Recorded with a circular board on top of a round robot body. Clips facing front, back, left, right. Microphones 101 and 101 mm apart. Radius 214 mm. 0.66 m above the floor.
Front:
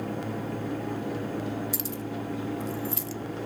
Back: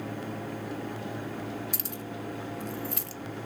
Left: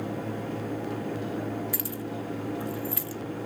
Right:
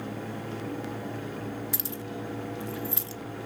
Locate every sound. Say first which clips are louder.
1.7 s keys jangling: front 5 dB, left 2 dB; 155° right, 0.9 m